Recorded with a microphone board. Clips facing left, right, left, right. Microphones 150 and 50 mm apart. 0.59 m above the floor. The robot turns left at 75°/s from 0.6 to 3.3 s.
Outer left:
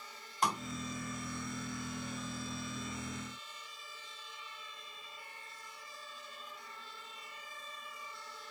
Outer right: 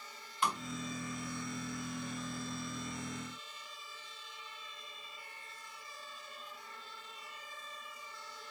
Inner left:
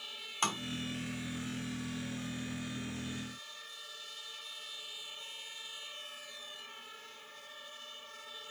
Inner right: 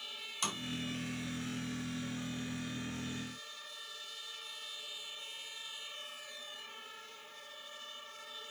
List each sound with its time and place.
0.4 s tapping: 40° left (ahead or behind), 3.5 m